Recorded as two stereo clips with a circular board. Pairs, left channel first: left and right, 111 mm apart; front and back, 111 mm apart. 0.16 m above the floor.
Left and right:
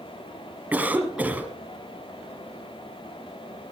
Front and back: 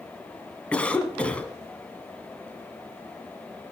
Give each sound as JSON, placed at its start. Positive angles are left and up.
{"t": 0.7, "sound": "a cough", "azimuth_deg": -55, "distance_m": 1.4}